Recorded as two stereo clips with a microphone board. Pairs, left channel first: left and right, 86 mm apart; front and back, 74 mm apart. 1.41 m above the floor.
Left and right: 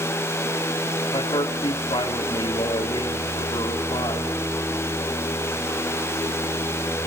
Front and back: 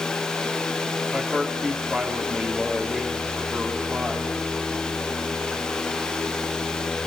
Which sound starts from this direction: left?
A man speaking, at 1.1 s.